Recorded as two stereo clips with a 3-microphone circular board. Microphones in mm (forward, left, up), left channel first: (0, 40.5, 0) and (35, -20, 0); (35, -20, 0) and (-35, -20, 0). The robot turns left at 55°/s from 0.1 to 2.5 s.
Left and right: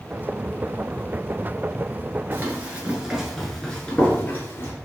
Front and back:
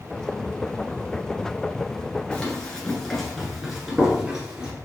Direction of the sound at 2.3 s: 60° right.